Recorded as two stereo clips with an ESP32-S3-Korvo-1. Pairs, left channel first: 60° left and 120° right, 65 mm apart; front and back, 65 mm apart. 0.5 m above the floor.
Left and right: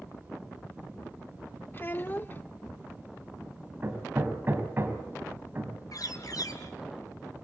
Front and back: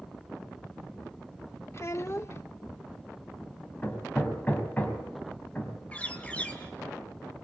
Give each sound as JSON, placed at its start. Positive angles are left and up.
{"t": 1.7, "sound": "a child speaking", "azimuth_deg": 20, "distance_m": 0.5}
{"t": 3.8, "sound": "hammering", "azimuth_deg": -65, "distance_m": 3.5}
{"t": 5.9, "sound": "a bird", "azimuth_deg": 65, "distance_m": 2.5}